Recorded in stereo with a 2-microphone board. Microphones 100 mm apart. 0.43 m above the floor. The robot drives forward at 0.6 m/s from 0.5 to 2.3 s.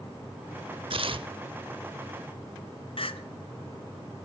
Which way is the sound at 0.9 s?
60° right (ahead or behind).